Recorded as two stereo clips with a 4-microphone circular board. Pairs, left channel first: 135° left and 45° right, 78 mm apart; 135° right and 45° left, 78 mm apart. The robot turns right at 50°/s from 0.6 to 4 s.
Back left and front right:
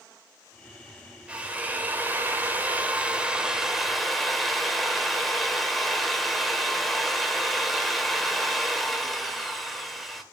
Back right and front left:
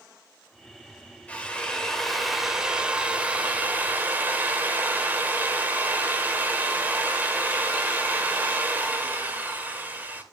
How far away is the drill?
About 1.4 m.